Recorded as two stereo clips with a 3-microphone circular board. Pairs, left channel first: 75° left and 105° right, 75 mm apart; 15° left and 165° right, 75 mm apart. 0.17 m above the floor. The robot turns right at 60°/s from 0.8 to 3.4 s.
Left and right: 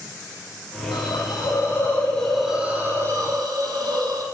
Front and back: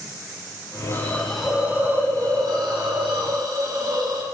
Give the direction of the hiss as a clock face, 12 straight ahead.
9 o'clock.